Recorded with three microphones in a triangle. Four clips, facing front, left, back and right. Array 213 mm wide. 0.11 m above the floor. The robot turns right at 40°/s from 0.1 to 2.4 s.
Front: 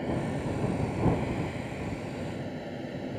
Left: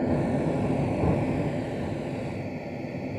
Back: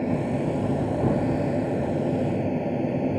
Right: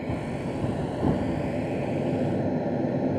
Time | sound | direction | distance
0.0 | an aircraft | 130° left | ?